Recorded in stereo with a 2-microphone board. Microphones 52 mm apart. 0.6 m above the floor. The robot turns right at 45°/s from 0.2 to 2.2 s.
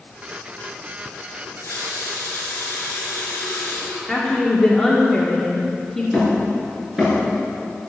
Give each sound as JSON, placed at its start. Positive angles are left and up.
{"t": 1.4, "sound": "a running tap", "azimuth_deg": 90, "distance_m": 5.0}
{"t": 4.1, "sound": "a woman speaking", "side_deg": 5, "distance_m": 1.7}
{"t": 6.1, "sound": "hammering", "side_deg": -15, "distance_m": 6.0}